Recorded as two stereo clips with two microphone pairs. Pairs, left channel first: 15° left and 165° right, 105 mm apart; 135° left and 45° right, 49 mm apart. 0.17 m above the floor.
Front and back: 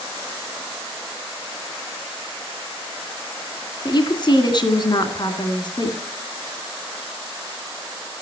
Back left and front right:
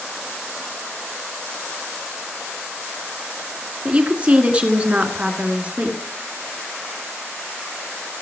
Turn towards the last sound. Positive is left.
turn(degrees=10)